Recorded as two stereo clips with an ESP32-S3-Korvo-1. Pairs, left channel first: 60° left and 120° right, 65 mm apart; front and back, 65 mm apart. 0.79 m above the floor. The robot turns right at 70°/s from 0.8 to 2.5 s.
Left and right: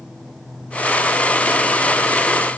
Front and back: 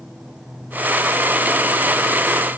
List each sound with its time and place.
Only background noise.